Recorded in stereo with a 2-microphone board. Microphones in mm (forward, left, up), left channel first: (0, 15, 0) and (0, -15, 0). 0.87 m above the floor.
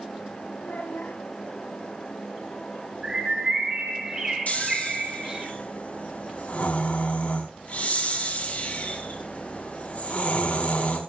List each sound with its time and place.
0.6 s a child speaking: 85° left, 4.5 m
3.0 s a bird: 25° right (ahead or behind), 3.5 m
4.5 s snoring: 50° left (ahead or behind), 4 m